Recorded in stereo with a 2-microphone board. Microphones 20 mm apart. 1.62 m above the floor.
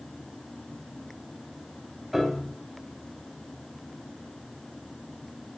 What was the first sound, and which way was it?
A piano, centre (ahead or behind).